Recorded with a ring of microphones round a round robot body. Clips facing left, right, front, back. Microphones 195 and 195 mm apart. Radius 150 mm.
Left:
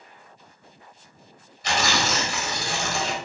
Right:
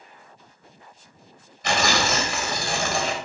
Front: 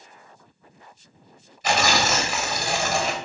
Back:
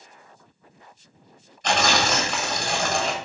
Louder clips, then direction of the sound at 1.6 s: Right 2 dB, even; 80° right.